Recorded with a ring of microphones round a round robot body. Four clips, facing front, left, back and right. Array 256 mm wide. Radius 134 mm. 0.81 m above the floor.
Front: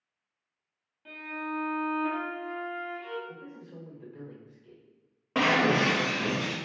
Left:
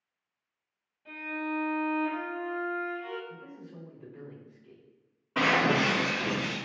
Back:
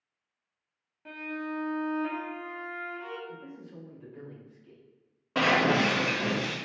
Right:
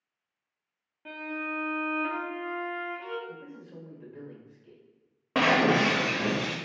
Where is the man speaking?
60° right, 1.3 m.